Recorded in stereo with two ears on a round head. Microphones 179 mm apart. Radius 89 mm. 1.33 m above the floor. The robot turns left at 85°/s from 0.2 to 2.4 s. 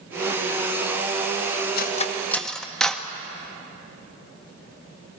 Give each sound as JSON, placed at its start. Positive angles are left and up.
{"t": 1.8, "sound": "cutlery clinking", "side_deg": 50, "distance_m": 1.0}